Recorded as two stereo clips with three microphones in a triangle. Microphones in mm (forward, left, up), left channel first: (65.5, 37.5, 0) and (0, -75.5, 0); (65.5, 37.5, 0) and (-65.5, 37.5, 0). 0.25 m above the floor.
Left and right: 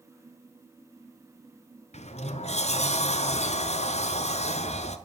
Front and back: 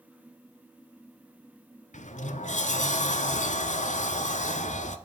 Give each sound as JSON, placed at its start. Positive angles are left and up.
{"t": 1.9, "sound": "a sliding door", "azimuth_deg": 25, "distance_m": 0.7}